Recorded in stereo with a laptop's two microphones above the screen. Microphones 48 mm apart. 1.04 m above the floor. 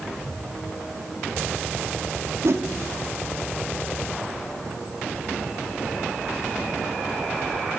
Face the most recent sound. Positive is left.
turn(degrees=-65)  # may be behind; listen again after turning